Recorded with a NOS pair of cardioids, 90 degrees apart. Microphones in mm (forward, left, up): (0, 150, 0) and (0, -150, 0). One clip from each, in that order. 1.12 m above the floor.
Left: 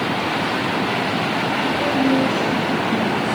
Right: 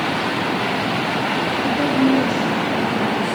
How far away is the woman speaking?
About 0.8 m.